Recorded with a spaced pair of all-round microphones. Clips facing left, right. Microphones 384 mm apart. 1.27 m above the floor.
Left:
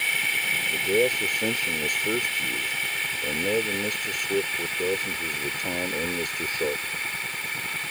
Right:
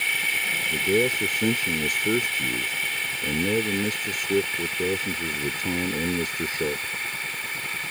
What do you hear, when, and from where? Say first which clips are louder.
0.7 s a man speaking: even; 30° right (ahead or behind)